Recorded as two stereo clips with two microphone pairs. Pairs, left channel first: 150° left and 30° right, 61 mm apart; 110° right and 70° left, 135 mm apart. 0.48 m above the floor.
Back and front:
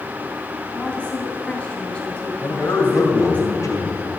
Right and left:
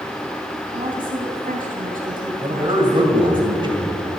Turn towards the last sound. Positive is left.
turn(degrees=125)